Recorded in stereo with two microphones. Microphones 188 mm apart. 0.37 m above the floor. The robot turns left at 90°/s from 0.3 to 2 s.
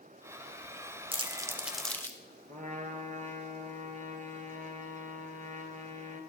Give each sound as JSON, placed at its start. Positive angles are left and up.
{"t": 1.1, "sound": "crumpling", "side_deg": -30, "distance_m": 0.6}
{"t": 2.5, "sound": "a trumpet", "side_deg": -45, "distance_m": 1.0}